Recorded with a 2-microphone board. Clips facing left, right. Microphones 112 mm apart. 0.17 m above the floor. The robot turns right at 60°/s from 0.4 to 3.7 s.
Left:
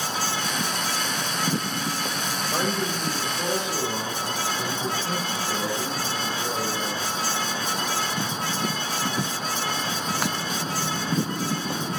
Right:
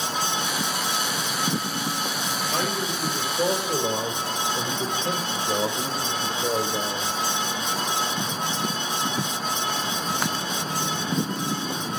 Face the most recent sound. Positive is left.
turn(degrees=-140)